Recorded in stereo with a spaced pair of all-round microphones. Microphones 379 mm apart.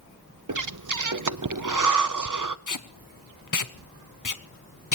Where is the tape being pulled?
55° left (ahead or behind), 0.8 m.